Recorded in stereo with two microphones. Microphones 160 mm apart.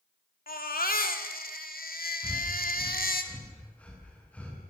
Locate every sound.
0.5 s a baby crying: 80° left, 2.5 m
2.2 s breathing: 10° left (ahead or behind), 9 m